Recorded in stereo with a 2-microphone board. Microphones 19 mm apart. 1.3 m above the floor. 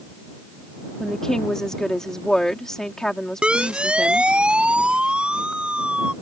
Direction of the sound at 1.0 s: 30° left (ahead or behind).